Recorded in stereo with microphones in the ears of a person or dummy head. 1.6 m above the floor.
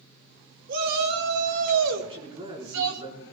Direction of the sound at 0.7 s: 45° right (ahead or behind).